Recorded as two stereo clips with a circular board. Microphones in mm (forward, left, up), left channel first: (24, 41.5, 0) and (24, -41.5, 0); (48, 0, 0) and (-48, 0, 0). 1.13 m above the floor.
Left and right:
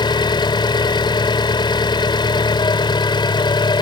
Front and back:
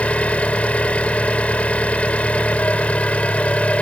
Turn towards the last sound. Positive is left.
turn(degrees=75)